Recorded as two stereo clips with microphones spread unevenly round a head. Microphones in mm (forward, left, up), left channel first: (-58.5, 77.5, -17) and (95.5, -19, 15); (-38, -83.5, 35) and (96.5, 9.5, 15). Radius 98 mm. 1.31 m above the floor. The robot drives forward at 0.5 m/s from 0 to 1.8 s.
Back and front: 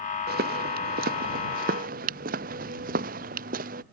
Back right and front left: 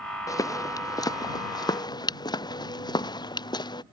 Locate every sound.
0.3 s footsteps: 75° right; by 3.8 s 80° right